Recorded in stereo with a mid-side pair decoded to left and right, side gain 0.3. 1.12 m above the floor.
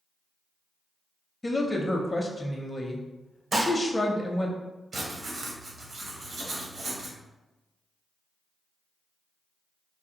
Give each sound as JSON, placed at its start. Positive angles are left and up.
{"t": 1.4, "sound": "a woman speaking", "azimuth_deg": 20, "distance_m": 0.5}
{"t": 3.5, "sound": "dishes clattering", "azimuth_deg": -55, "distance_m": 0.7}
{"t": 4.9, "sound": "writing", "azimuth_deg": -65, "distance_m": 0.9}